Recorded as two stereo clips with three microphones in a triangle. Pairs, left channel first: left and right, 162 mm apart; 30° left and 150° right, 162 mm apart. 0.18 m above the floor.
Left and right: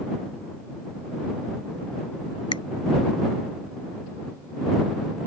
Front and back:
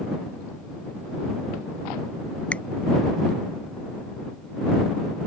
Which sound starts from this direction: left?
A finger snap, at 2.5 s.